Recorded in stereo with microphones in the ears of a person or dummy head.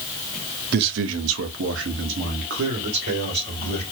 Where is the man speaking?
55° right (ahead or behind), 0.7 m.